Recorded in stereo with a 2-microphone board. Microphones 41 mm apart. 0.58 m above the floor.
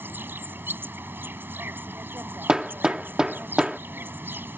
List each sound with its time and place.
0.0 s an insect: 65° right (ahead or behind)
2.5 s hammering: 20° right (ahead or behind)